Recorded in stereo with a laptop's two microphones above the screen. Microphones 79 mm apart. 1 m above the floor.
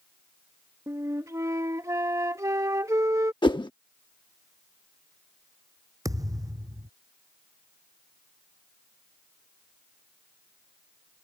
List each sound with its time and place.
0.9 s a flute: 40° right (ahead or behind)
3.4 s a whoosh: 85° left
6.0 s a thud: 45° right (ahead or behind)